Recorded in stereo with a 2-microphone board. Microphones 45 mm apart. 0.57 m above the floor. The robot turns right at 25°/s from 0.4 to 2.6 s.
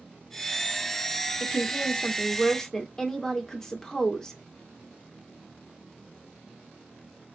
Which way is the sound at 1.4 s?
135° left.